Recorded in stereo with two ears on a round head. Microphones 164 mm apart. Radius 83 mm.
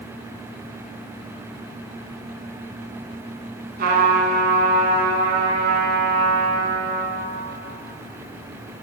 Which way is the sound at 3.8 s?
55° right (ahead or behind).